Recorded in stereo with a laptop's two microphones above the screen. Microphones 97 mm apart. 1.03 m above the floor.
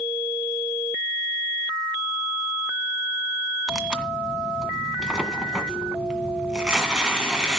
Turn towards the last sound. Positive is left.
turn(degrees=-5)  # may be behind; listen again after turning